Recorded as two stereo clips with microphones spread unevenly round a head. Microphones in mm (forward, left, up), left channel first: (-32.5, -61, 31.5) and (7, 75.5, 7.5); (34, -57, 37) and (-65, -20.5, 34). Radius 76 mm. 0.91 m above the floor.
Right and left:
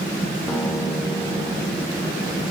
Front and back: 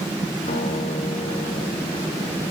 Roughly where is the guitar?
Ahead right.